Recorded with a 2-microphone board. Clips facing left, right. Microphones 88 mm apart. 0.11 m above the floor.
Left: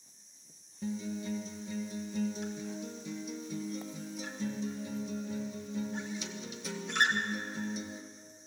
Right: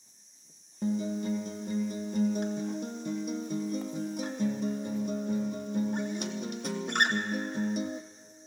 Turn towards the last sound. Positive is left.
turn(degrees=-65)  # may be behind; listen again after turning